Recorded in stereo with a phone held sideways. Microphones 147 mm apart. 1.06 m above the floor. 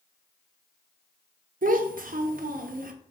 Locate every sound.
1.6 s a child speaking: 70° right (ahead or behind), 0.5 m